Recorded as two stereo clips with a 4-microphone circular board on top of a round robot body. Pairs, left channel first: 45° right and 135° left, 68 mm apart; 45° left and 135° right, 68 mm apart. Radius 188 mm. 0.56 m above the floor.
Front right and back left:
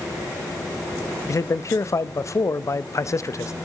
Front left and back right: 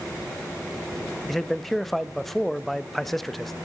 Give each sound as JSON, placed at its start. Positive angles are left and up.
{"t": 1.3, "sound": "a man speaking", "azimuth_deg": -40, "distance_m": 0.7}